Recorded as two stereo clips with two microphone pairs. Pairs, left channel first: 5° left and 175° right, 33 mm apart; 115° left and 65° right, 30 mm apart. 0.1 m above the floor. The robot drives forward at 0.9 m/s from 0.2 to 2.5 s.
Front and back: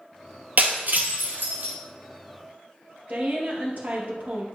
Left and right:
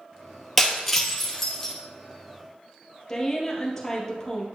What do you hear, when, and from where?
0.6 s breaking glass: 155° right, 1.4 m; by 1.7 s 165° right, 2.5 m
3.1 s a woman speaking: 170° right, 2.5 m